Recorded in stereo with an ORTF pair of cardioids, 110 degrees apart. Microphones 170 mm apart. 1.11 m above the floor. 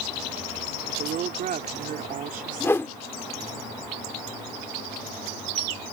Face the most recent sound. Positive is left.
turn(degrees=15)